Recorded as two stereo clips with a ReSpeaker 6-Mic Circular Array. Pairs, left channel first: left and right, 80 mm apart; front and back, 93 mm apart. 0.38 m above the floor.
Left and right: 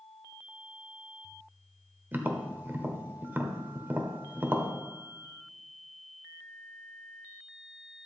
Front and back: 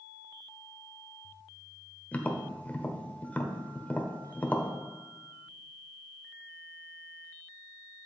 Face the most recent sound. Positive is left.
turn(degrees=-55)